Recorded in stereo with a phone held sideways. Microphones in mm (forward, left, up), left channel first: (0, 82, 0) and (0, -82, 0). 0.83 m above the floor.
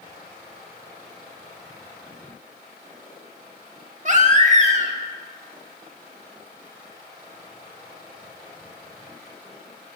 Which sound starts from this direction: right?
A baby crying, at 4.0 s.